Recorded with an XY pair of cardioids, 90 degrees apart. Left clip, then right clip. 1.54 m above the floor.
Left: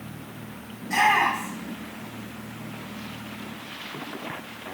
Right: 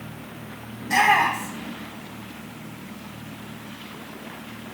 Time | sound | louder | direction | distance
0.8 | a shout | right 2 dB | 60° right | 5.5 m